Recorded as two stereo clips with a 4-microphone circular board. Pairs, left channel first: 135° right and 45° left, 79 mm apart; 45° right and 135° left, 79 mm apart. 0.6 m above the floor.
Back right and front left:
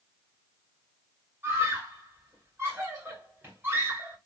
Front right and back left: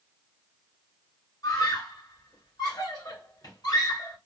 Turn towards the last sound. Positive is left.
turn(degrees=-20)